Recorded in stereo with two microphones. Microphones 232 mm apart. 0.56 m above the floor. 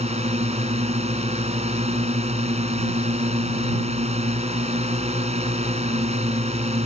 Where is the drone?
25° right (ahead or behind).